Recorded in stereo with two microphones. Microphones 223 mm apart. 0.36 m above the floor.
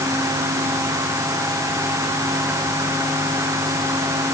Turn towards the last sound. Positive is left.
No sound to turn to.